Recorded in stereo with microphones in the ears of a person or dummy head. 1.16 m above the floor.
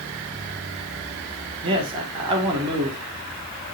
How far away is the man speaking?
About 3 m.